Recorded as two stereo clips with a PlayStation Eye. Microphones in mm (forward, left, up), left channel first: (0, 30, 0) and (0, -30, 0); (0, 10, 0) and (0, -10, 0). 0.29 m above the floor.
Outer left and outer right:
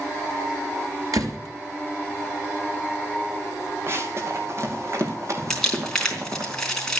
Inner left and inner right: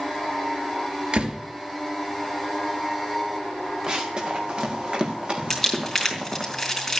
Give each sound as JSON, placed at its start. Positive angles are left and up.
{"t": 1.1, "sound": "a door slam", "side_deg": -80, "distance_m": 3.0}
{"t": 3.9, "sound": "running footsteps", "side_deg": -45, "distance_m": 3.5}
{"t": 5.5, "sound": "crumpling", "side_deg": 10, "distance_m": 3.5}